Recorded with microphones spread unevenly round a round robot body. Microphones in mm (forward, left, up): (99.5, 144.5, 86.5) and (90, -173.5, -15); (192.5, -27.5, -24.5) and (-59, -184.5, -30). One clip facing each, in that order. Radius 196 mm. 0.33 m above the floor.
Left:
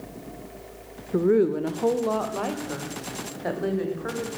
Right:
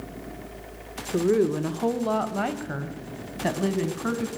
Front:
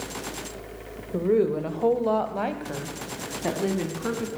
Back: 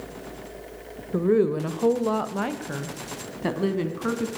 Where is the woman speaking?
130° right, 0.9 m; by 4.3 s 80° right, 2.5 m.